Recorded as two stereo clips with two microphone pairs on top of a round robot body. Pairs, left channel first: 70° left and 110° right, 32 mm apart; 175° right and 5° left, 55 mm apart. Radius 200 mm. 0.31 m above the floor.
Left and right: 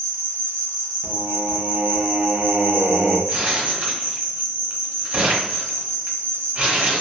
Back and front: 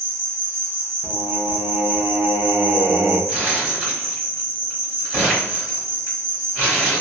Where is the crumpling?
70° right, 1.6 m.